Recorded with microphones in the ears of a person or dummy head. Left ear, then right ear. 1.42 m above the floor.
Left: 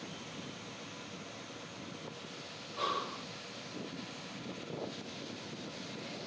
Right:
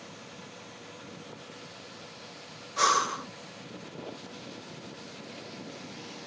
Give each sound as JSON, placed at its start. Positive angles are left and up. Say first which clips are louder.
{"t": 2.8, "sound": "breathing", "louder": "right 11 dB", "side_deg": -60}